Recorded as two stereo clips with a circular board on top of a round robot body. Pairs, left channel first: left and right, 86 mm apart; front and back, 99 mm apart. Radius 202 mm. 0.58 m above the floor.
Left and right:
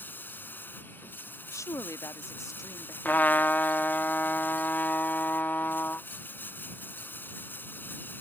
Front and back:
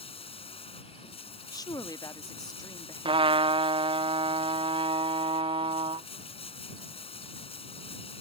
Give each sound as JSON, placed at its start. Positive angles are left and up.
{"t": 0.0, "sound": "running water", "azimuth_deg": 25}
{"t": 1.5, "sound": "a woman speaking", "azimuth_deg": 45}
{"t": 3.0, "sound": "a trumpet", "azimuth_deg": 160}